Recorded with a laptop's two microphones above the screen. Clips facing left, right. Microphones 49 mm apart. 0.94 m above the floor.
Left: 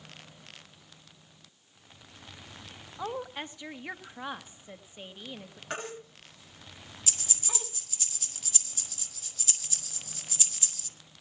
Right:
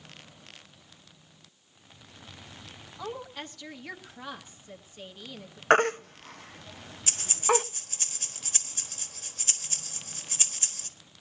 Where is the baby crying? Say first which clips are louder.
Right 17 dB; 60° right (ahead or behind), 0.5 m.